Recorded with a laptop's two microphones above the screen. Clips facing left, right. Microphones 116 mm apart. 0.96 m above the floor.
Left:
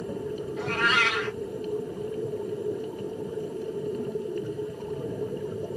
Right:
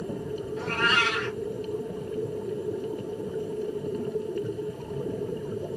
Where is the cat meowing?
10° left (ahead or behind), 1.7 m.